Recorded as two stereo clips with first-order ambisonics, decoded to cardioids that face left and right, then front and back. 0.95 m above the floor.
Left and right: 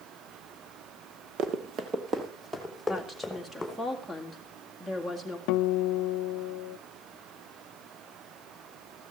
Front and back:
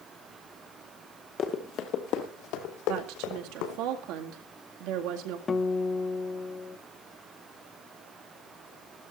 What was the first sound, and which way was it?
Running footsteps, 55° right.